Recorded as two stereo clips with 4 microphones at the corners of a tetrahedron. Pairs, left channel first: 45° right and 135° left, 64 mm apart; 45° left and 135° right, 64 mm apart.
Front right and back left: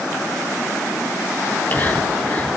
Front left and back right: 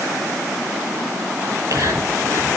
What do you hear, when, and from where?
1.4 s whispering: 105° right, 6 m